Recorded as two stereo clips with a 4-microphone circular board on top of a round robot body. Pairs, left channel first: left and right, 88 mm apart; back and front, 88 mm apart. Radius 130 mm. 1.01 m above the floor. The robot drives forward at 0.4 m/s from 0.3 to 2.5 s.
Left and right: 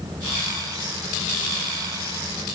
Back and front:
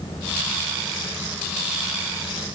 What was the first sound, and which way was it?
Only background noise.